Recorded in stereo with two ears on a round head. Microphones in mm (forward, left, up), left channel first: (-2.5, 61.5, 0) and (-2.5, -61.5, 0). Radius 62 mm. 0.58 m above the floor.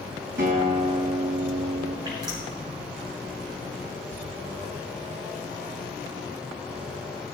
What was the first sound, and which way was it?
A guitar, 75° right (ahead or behind).